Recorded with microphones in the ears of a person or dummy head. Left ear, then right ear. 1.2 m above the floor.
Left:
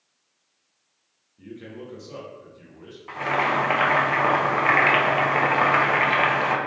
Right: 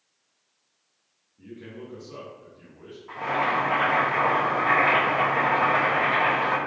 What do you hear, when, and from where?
1.4 s a man speaking: 25° left (ahead or behind), 0.7 m
3.1 s boiling: 75° left (ahead or behind), 0.8 m